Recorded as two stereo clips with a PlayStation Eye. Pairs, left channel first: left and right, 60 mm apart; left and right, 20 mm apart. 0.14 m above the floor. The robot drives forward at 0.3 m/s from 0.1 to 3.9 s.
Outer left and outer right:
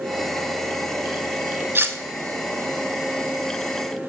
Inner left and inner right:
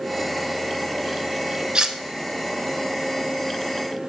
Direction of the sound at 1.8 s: 40° right (ahead or behind).